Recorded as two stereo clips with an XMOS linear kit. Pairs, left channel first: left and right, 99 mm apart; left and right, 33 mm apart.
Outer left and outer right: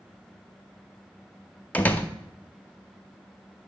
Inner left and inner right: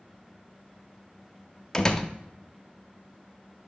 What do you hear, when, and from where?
1.7 s a door slam: 15° left (ahead or behind), 0.6 m